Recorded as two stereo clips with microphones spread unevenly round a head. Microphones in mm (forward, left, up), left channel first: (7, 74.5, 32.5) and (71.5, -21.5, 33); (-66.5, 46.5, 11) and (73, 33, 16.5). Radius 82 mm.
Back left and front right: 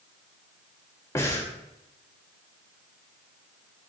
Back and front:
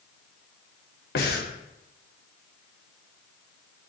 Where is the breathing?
165° right, 0.8 m.